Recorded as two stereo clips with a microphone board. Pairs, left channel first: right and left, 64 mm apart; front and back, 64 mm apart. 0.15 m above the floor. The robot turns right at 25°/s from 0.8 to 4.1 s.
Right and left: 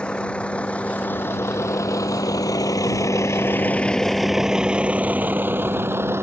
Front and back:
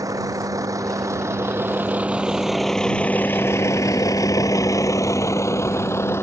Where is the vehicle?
165° right; by 6.2 s 45° left.